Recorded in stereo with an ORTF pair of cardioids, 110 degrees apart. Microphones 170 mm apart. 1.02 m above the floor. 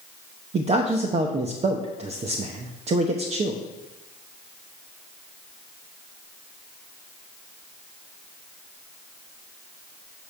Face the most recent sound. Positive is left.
turn(degrees=-40)